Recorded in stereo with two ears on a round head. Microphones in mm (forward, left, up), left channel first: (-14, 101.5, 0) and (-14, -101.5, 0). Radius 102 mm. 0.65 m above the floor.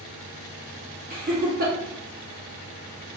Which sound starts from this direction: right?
Laughter, at 1.1 s.